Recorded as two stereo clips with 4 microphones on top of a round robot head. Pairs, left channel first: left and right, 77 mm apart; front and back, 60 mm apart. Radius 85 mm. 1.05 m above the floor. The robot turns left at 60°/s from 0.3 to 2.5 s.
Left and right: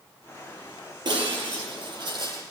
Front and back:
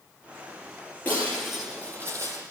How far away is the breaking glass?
About 8.5 m.